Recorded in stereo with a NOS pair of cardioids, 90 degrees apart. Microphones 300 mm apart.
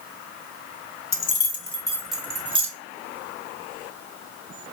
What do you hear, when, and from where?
1.1 s keys jangling: 45° left, 0.7 m; by 2.7 s 20° right, 0.8 m